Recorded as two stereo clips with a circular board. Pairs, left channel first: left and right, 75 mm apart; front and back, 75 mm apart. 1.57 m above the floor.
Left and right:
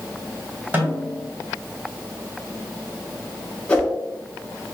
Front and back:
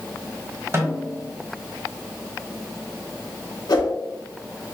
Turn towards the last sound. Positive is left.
turn(degrees=15)